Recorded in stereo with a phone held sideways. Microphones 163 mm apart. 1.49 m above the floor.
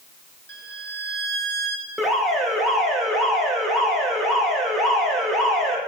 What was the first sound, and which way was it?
A violin, 85° right.